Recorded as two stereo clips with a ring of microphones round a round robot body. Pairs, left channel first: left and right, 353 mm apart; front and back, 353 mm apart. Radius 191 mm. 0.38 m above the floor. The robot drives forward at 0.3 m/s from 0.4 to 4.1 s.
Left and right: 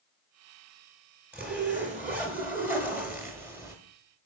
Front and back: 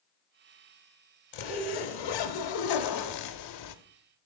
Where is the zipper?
5° right, 1.4 m; by 3.8 s 10° right, 0.8 m.